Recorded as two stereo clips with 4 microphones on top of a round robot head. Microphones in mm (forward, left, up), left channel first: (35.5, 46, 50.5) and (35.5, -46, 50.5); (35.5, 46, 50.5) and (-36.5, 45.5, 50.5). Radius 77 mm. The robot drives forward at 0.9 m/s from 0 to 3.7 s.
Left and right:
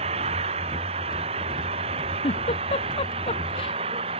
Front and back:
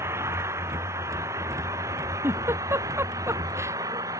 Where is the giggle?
125° left; by 3.8 s 130° left.